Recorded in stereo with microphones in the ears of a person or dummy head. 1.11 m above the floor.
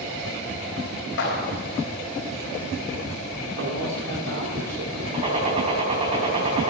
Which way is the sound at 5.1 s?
25° right (ahead or behind).